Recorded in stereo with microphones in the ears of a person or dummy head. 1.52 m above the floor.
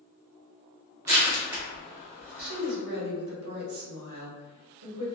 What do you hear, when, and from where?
1.1 s crushing: 10° right (ahead or behind), 0.8 m
2.4 s a woman speaking: 70° right (ahead or behind), 1.0 m